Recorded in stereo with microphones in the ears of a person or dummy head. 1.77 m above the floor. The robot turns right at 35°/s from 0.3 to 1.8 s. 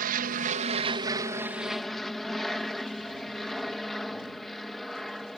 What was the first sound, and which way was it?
An aircraft, 55° right.